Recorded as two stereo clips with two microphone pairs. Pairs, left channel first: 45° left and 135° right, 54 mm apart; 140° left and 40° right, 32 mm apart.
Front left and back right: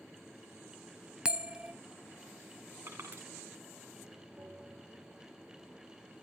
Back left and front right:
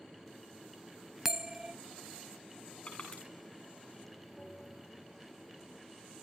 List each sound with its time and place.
1.2 s a bell: 95° right, 0.6 m
2.9 s crushing: 165° right, 7.5 m
4.4 s a bell: 160° right, 3.5 m